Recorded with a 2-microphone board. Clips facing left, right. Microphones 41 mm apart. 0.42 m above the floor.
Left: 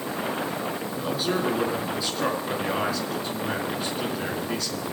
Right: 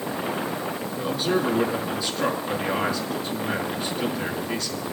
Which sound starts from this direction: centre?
A man speaking, at 0.9 s.